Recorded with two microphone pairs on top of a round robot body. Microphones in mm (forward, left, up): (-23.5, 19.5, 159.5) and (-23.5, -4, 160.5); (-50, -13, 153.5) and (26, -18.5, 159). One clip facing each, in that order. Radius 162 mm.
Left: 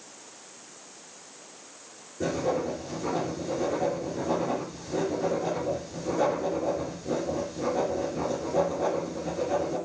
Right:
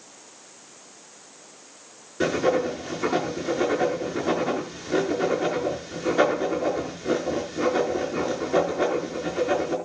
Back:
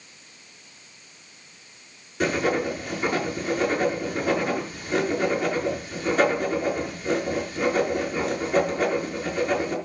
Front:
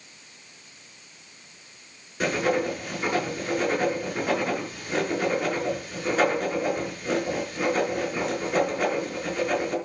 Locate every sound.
2.2 s writing: 95° right, 5 m